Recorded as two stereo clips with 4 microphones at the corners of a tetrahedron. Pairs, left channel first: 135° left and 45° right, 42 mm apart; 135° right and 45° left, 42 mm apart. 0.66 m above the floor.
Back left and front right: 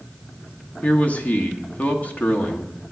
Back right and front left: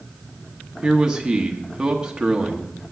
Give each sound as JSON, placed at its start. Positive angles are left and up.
{"t": 0.8, "sound": "a man speaking", "azimuth_deg": 110, "distance_m": 1.0}